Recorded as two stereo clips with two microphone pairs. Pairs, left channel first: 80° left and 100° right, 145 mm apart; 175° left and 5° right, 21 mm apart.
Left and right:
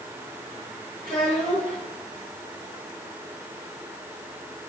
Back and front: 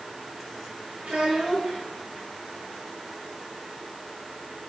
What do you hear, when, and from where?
1.0 s a child speaking: 20° left, 4.5 m